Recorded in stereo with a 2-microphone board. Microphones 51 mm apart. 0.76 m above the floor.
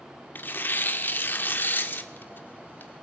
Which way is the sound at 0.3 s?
40° left (ahead or behind).